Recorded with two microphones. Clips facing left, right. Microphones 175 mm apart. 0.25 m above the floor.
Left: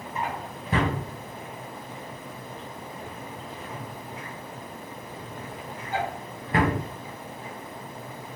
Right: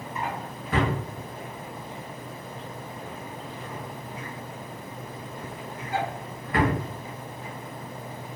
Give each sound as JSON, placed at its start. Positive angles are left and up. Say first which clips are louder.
{"t": 0.1, "sound": "a drawer", "louder": "left 1 dB", "side_deg": 30, "distance_m": 1.5}